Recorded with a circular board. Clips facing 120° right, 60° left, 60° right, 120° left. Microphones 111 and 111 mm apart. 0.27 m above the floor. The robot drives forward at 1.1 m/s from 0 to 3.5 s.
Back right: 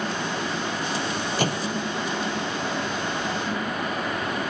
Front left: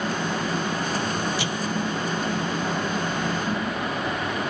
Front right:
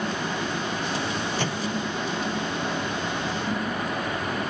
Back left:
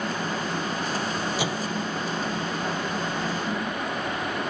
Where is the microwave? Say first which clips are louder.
Back right 2 dB, even; 160° right.